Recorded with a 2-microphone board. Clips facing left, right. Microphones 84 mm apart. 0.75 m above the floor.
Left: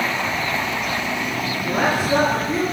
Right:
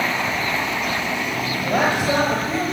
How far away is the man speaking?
About 4.5 m.